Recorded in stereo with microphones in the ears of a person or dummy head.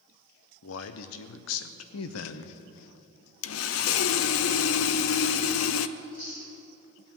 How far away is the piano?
No piano in this recording.